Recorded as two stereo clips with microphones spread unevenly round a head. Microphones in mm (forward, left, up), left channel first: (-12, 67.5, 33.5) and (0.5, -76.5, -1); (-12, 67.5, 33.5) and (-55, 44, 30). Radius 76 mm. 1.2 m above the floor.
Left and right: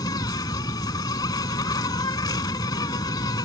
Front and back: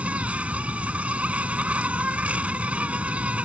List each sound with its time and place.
0.0 s an insect: 145° left